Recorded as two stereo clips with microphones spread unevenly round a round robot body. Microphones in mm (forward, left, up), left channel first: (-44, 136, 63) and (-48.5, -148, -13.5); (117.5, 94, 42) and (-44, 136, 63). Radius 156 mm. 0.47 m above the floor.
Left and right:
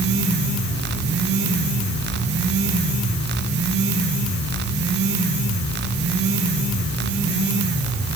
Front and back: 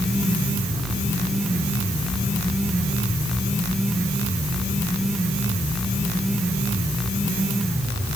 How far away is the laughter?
No laughter in this recording.